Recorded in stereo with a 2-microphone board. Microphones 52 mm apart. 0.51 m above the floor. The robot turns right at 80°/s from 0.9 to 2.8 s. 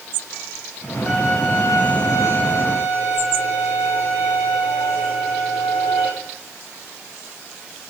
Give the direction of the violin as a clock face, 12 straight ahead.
12 o'clock.